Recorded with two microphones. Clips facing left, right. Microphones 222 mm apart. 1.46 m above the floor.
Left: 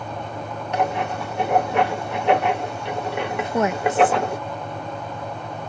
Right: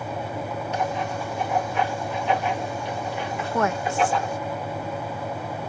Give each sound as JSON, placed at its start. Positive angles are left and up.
{"t": 0.7, "sound": "writing", "side_deg": 65}
{"t": 3.4, "sound": "a woman speaking", "side_deg": 20}